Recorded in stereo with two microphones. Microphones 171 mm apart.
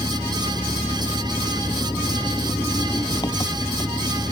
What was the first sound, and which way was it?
An engine running, 25° left (ahead or behind).